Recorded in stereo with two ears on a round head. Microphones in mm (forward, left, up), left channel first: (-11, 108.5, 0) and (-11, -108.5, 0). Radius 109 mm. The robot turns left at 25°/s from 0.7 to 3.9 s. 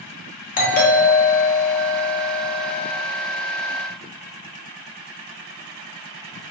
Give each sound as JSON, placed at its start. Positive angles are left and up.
{"t": 0.6, "sound": "a doorbell", "azimuth_deg": 140, "distance_m": 1.3}